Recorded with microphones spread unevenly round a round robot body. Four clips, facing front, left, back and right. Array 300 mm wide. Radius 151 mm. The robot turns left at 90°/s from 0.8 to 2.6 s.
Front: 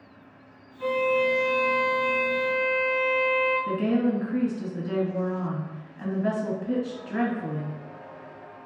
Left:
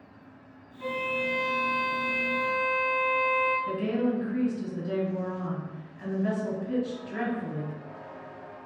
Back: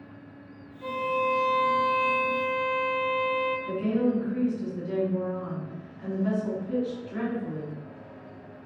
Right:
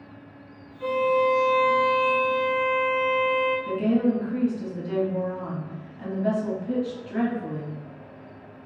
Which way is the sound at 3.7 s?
25° right.